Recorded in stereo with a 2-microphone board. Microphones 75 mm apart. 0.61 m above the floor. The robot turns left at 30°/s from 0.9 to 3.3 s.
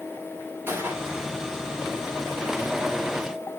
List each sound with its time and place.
0.7 s a gunshot: 30° right (ahead or behind), 3 m; by 1.3 s 40° right (ahead or behind), 3 m